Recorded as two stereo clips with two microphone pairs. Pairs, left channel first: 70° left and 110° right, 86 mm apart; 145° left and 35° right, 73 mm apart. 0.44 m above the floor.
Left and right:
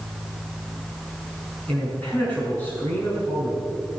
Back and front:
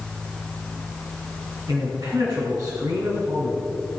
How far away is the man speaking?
About 5.5 m.